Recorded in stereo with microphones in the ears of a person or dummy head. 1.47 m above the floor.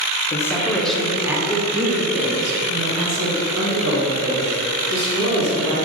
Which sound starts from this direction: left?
A man speaking, at 0.3 s.